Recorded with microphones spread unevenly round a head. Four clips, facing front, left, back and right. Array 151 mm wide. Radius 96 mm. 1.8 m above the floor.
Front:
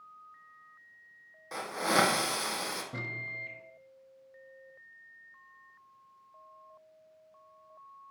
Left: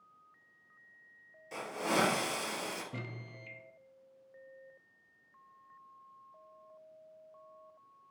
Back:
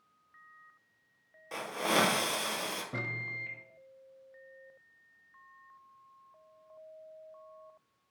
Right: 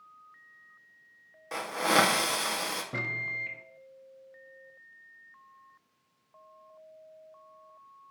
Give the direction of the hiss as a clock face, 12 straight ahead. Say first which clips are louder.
Right 7 dB, front 2 dB; 3 o'clock.